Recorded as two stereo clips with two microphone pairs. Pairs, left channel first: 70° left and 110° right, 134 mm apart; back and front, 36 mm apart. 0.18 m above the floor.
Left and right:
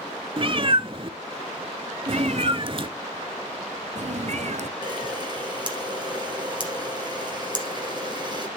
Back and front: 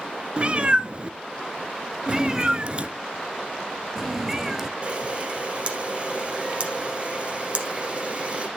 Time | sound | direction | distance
0.4 | a cat meowing | 65° right | 0.5 m
2.1 | a cat meowing | 80° right | 0.8 m
4.8 | a camera shutter | 60° right | 1.9 m